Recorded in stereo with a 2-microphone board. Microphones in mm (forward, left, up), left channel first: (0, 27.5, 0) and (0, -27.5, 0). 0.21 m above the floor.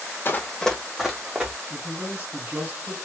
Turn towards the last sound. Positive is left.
turn(degrees=-30)  # may be behind; listen again after turning